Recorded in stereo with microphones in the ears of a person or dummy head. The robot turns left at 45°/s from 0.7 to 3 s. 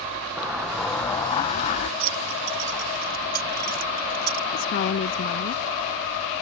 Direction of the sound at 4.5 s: 45° left (ahead or behind).